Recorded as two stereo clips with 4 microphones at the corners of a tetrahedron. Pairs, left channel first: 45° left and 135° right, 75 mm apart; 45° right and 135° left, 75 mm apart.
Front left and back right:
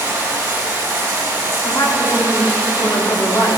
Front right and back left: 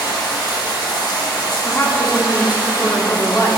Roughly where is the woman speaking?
Ahead.